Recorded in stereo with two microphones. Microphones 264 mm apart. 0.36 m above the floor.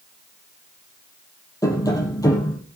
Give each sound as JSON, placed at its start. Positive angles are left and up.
{"t": 1.6, "sound": "tapping", "side_deg": 15, "distance_m": 3.5}